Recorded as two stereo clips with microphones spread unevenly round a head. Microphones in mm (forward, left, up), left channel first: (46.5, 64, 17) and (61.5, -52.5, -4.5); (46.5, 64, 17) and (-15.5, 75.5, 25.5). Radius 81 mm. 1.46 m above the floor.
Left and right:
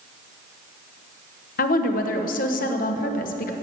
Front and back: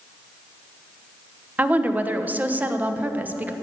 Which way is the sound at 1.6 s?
105° left.